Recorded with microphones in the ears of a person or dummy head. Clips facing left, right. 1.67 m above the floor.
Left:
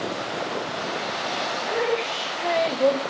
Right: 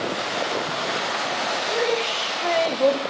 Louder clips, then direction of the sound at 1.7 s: Right 1 dB; 5° right (ahead or behind).